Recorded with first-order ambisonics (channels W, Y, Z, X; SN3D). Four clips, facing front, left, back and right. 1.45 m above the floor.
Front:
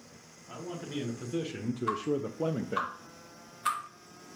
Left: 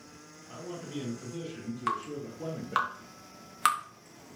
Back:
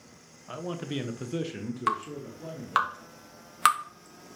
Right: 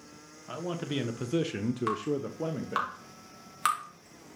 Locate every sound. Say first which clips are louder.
0.5 s a man speaking: right 6 dB, back 4 dB; 135° right, 1.3 m; by 2.9 s 15° right, 1.0 m
1.9 s dripping: right 2 dB, back 2 dB; 170° left, 1.8 m